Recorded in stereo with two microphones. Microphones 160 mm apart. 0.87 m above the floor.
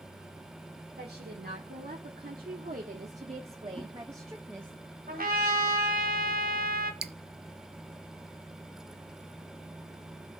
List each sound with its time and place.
1.0 s a woman speaking: 80° right, 2 m; by 4.8 s 5° right (ahead or behind), 1.4 m
3.8 s a whoosh: 15° right (ahead or behind), 3.5 m
5.1 s a trumpet: 65° right (ahead or behind), 1.8 m
7.0 s dripping: 85° right, 0.5 m